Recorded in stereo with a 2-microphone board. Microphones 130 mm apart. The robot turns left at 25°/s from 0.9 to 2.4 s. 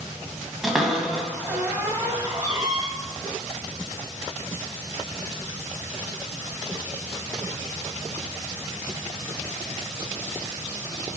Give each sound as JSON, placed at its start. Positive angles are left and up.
{"t": 0.6, "sound": "a cupboard door", "side_deg": 0, "distance_m": 1.6}